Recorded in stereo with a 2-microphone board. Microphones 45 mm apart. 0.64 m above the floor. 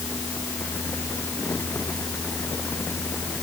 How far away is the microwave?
No microwave in this recording.